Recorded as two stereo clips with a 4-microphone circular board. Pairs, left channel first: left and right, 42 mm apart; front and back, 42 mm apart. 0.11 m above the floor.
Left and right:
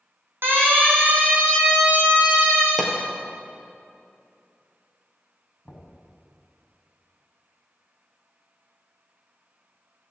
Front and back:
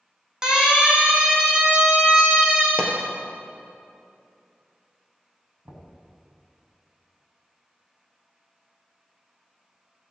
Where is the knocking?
175° right, 6 m.